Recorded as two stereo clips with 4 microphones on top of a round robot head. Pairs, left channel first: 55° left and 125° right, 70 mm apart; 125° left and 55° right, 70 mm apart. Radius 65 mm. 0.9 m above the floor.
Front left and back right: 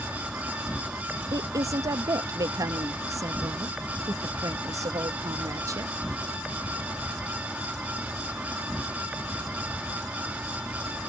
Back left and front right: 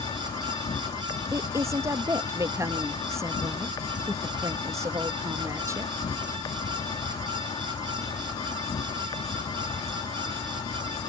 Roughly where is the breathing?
No breathing in this recording.